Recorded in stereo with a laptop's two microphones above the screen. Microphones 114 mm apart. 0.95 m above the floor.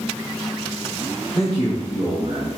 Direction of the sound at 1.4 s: 60° left (ahead or behind).